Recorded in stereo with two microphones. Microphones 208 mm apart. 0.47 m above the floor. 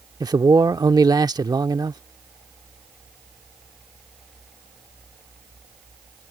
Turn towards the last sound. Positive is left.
turn(degrees=-20)  # may be behind; listen again after turning